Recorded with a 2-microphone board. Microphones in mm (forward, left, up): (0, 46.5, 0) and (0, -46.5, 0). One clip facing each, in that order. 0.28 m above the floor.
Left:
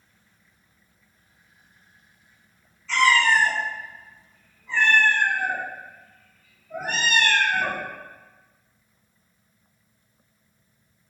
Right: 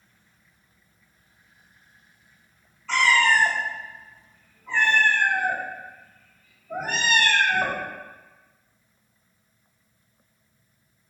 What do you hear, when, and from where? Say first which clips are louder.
2.9 s a cat meowing: left 1 dB; 65° right (ahead or behind), 1.4 m